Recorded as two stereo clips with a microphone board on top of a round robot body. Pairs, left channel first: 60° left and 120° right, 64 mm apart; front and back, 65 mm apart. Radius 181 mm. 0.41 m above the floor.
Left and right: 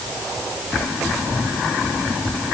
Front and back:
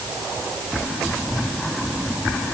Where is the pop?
I don't hear a pop.